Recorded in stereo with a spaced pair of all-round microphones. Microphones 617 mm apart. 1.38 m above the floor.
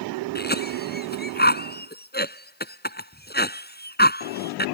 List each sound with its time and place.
0.3 s a cough: 15° left (ahead or behind)